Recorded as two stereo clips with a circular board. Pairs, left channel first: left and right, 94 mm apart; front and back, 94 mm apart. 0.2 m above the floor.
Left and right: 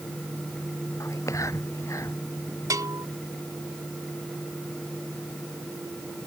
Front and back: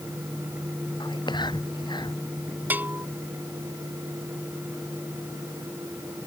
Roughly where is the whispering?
Ahead left.